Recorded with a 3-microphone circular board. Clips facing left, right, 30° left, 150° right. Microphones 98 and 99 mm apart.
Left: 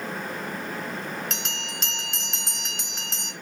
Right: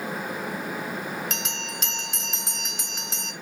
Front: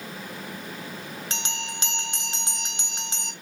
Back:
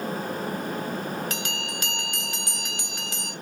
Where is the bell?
5° right, 0.6 m.